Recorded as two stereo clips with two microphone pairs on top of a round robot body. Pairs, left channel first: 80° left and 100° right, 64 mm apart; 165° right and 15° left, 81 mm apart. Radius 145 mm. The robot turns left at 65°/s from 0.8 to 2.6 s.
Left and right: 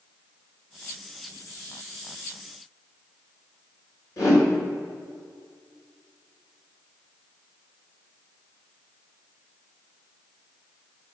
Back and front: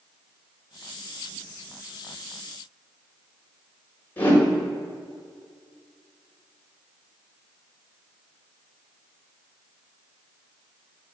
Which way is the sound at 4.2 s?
125° left.